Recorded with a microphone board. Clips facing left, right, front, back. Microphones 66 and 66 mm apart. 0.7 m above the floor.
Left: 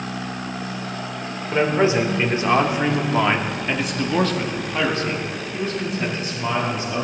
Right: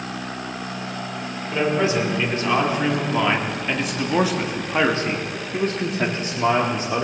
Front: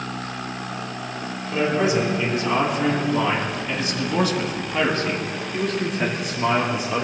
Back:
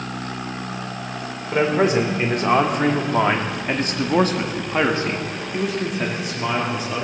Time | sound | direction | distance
1.5 | a man speaking | 145° left | 3 m